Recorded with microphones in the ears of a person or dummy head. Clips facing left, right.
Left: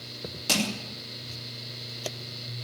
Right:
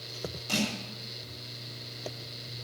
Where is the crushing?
70° left (ahead or behind), 4 m.